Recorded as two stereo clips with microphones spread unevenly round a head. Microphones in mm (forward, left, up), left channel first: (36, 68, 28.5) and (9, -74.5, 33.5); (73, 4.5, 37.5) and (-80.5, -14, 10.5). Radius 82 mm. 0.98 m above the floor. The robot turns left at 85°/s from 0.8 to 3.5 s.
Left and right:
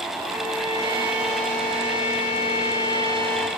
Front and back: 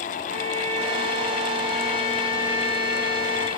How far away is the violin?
About 1.2 m.